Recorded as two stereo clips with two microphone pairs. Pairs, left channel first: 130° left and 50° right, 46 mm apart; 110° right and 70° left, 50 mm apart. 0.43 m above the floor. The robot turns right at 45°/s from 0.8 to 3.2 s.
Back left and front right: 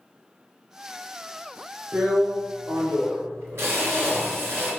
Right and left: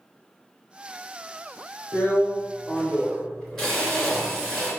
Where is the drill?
85° right, 3 m; by 4.7 s 25° right, 3 m.